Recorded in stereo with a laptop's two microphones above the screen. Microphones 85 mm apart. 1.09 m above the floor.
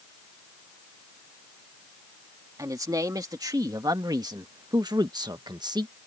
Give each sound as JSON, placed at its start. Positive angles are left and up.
{"t": 2.6, "sound": "a man speaking", "side_deg": -45}